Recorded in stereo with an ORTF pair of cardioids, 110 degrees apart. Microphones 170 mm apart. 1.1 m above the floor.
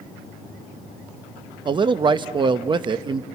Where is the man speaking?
30° right, 0.8 m.